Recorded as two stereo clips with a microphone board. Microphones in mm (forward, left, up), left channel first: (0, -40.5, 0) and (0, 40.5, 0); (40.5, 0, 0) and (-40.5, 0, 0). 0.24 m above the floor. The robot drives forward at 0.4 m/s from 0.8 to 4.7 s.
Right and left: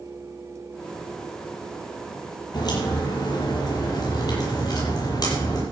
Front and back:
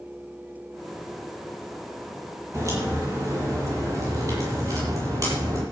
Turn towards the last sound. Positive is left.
turn(degrees=-130)